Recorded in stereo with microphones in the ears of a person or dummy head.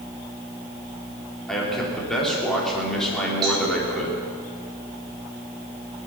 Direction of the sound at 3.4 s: 25° right (ahead or behind).